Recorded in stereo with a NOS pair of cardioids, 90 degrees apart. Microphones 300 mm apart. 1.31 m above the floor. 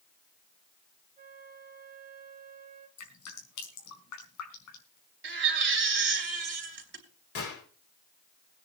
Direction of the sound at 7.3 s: 50° left.